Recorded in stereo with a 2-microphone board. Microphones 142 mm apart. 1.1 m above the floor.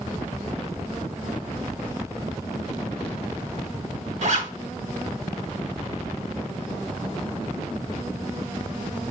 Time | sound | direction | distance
4.2 | a zipper | 55° right (ahead or behind) | 1.6 m